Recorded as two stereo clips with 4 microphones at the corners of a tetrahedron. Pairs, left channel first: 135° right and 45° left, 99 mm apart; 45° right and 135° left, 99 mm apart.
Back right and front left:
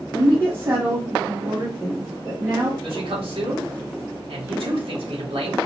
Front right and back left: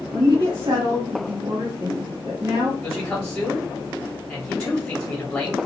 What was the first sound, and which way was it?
A woman speaking, 100° left.